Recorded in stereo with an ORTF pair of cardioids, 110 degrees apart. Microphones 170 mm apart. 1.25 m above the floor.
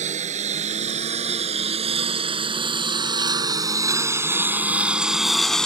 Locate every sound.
0.0 s a lawn mower: 50° right; by 5.7 s 5° left